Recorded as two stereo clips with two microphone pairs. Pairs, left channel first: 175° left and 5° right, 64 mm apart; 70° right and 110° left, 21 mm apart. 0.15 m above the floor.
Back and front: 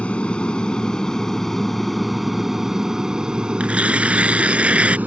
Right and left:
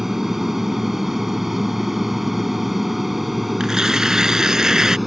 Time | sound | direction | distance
0.0 | an aircraft | 155° left | ?
3.6 | tearing paper | 60° left | ?